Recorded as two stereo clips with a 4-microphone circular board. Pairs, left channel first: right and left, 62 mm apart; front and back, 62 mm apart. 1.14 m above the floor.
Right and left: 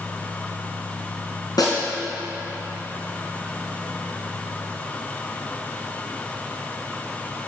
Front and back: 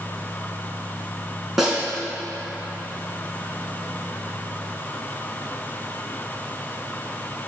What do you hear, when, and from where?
1.6 s a snare drum: 95° right, 3.5 m